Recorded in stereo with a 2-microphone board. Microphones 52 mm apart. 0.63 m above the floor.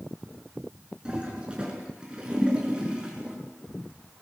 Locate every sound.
1.1 s a toilet flushing: 20° right (ahead or behind), 5.5 m